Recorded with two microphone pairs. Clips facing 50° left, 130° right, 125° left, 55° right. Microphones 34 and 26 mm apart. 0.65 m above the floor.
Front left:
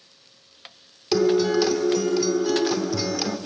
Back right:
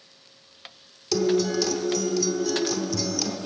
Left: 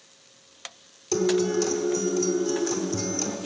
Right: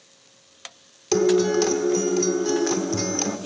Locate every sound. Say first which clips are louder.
1.1 s a guitar: front left 3 dB, right 4 dB; 10° right, 0.7 m